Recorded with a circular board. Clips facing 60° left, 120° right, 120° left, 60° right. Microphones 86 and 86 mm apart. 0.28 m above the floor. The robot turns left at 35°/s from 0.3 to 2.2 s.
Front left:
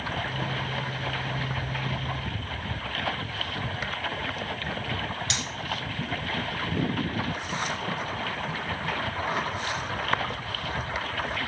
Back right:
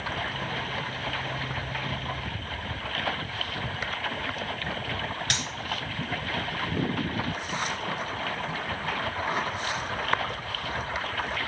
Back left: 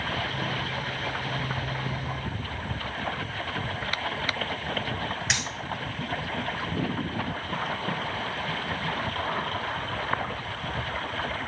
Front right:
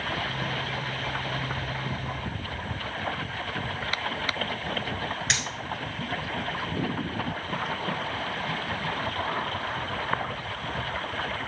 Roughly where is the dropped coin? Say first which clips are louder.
Back right 1 dB, even; behind right.